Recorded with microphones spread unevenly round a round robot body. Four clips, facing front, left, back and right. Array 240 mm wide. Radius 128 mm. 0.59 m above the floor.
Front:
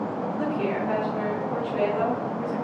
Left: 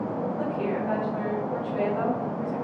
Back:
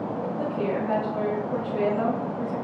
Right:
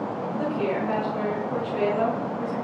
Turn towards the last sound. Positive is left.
turn(degrees=65)